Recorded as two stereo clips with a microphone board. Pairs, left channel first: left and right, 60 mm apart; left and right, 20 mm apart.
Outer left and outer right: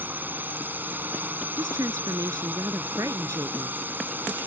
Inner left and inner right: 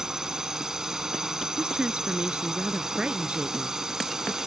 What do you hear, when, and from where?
0.0 s a drone: 35° right (ahead or behind)
1.6 s a woman speaking: 65° right (ahead or behind)